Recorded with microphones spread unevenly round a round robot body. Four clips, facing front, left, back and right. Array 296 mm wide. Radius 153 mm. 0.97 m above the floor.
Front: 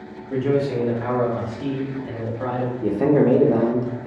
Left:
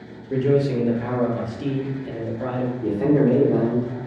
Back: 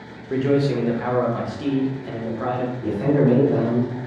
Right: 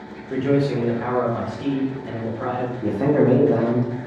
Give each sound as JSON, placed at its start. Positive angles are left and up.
{"t": 0.3, "sound": "a man speaking", "azimuth_deg": 145, "distance_m": 0.7}
{"t": 2.8, "sound": "a man speaking", "azimuth_deg": -35, "distance_m": 0.7}